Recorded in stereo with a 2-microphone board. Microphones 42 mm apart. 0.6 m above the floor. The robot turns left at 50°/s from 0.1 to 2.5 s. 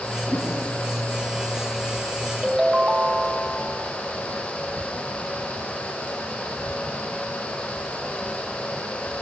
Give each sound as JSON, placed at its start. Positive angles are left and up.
{"t": 0.3, "sound": "a whoosh", "side_deg": 20, "distance_m": 7.0}
{"t": 2.4, "sound": "a ringtone", "side_deg": -5, "distance_m": 2.5}